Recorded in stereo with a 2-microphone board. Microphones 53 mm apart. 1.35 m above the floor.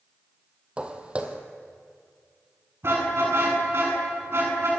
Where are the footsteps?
20° right (ahead or behind), 2 m.